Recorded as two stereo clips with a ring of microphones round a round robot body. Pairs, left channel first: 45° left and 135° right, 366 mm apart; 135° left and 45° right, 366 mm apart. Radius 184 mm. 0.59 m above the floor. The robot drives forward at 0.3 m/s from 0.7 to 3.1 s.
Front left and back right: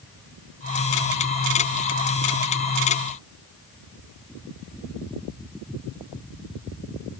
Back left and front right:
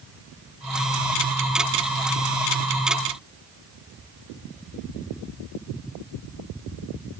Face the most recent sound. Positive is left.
No sound to turn to.